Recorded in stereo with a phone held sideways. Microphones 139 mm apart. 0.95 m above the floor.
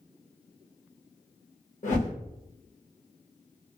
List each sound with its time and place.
1.8 s a whoosh: 60° left (ahead or behind), 1.3 m